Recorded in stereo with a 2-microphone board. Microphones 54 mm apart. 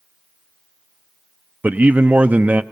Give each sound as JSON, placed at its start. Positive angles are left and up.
{"t": 1.6, "sound": "a man speaking", "side_deg": -30, "distance_m": 0.6}